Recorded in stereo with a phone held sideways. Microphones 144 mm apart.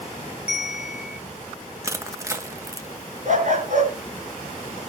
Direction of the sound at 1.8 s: 20° right (ahead or behind).